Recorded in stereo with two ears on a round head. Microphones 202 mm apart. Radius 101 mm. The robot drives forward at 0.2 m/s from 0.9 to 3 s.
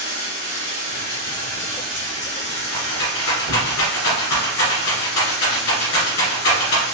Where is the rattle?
85° left, 2.0 m.